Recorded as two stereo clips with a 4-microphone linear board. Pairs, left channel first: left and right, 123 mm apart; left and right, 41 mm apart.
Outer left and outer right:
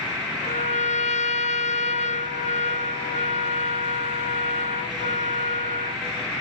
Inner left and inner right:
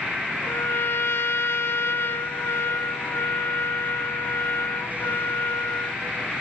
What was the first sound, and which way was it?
A trumpet, 75° left (ahead or behind).